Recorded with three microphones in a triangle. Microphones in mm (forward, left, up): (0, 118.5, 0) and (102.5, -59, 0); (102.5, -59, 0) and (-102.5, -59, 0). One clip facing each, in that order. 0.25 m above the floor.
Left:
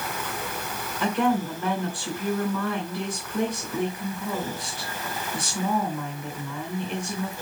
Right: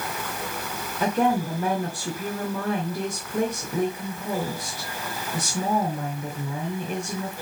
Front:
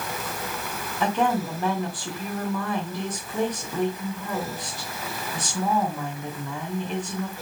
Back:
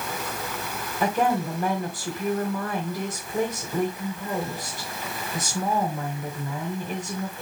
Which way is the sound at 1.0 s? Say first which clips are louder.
Right 1 dB, even; 100° right.